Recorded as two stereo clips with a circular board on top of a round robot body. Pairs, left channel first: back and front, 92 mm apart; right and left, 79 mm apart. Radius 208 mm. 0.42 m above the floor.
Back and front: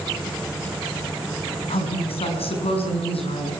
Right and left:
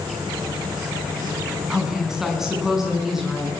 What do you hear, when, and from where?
1.7 s a woman speaking: 175° left, 6 m